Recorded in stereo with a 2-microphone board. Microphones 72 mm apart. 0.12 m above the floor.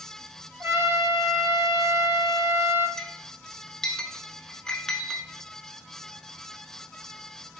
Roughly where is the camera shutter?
Right.